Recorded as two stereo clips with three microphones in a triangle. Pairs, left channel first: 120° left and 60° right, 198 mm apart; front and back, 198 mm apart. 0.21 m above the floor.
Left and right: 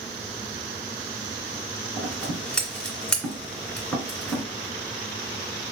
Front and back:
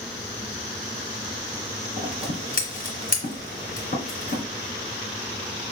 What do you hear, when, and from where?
2.0 s scissors: 35° left, 2 m